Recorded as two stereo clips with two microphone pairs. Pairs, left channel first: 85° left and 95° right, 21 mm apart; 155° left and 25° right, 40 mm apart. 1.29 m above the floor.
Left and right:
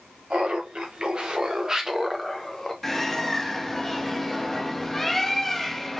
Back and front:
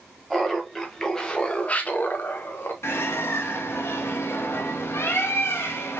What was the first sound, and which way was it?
Laughter, 120° right.